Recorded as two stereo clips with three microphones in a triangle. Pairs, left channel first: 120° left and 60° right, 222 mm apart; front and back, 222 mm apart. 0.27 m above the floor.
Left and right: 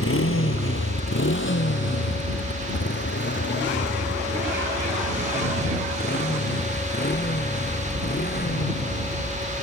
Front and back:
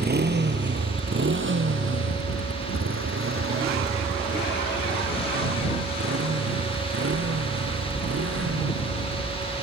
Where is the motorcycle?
135° left; by 9.6 s 165° left.